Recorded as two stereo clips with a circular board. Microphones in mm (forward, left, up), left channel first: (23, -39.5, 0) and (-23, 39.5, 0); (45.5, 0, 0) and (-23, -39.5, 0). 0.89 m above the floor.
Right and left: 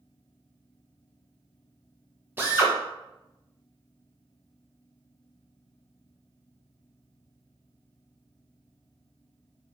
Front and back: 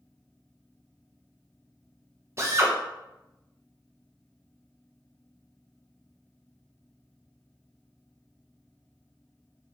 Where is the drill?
Straight behind, 0.6 m.